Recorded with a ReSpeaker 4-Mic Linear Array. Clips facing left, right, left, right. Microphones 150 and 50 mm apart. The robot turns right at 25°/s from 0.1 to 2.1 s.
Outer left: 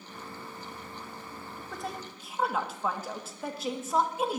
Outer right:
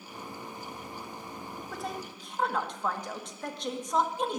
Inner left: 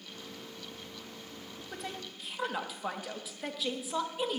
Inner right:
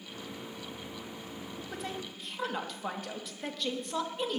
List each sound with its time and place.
1.7 s a woman speaking: centre (ahead or behind), 1.4 m; by 4.4 s 5° left (ahead or behind), 1.4 m